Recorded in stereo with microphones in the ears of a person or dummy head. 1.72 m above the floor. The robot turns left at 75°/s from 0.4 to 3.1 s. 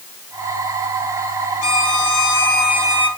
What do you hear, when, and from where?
1.6 s a violin: 115° left, 2.5 m; by 3.1 s 5° left, 2.5 m